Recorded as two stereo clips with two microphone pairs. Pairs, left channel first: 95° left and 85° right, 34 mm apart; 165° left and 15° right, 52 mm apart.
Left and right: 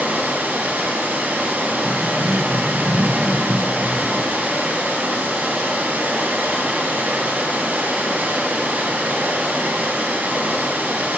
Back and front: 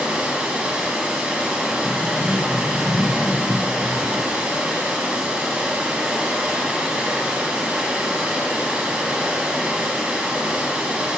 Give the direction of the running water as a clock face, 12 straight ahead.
3 o'clock.